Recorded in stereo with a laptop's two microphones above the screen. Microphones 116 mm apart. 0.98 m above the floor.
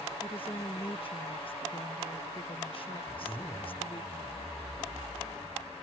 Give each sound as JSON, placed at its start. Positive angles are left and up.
{"t": 0.2, "sound": "a woman speaking", "side_deg": 50}
{"t": 3.1, "sound": "a zipper", "side_deg": 30}